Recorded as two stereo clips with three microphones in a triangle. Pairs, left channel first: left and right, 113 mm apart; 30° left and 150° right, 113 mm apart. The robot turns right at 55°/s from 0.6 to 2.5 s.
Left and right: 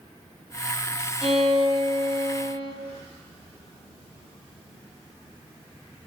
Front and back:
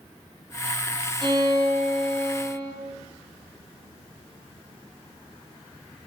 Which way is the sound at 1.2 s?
105° right.